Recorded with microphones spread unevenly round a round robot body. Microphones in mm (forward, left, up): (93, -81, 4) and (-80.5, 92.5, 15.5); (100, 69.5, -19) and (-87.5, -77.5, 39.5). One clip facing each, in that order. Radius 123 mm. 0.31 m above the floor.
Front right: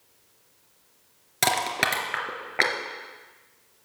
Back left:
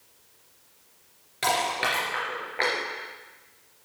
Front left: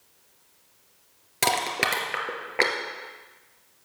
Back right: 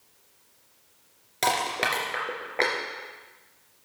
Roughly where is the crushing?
Ahead right.